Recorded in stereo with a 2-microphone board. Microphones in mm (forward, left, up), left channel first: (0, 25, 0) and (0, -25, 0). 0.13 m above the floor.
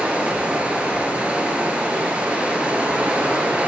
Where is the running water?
25° right (ahead or behind), 0.9 m.